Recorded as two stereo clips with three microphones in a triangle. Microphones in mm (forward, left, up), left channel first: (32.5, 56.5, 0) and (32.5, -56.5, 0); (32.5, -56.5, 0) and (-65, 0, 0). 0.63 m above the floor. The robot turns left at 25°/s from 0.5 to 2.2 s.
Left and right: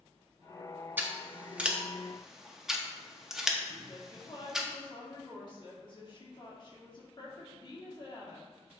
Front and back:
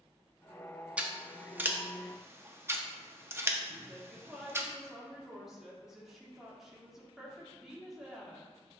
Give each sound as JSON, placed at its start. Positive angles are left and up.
{"t": 1.0, "sound": "scissors", "azimuth_deg": -140, "distance_m": 0.7}
{"t": 3.9, "sound": "a woman speaking", "azimuth_deg": 65, "distance_m": 1.7}